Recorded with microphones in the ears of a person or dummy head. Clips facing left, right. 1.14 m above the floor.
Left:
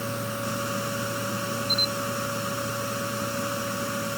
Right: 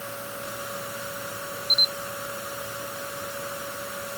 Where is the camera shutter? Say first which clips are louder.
Left 5 dB; 55° right (ahead or behind).